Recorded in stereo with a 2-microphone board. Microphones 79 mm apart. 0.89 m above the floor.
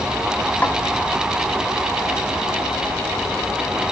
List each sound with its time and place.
0.6 s a snare drum: 20° left (ahead or behind), 1.4 m